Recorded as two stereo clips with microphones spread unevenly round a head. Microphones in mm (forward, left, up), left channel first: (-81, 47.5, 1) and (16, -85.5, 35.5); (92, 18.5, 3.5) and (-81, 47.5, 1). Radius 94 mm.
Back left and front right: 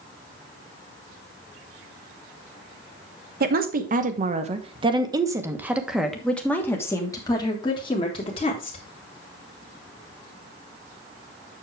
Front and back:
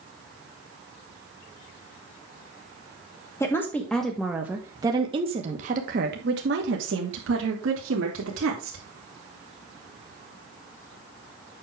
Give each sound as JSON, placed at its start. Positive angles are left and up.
{"t": 3.4, "sound": "a woman speaking", "azimuth_deg": -85, "distance_m": 1.4}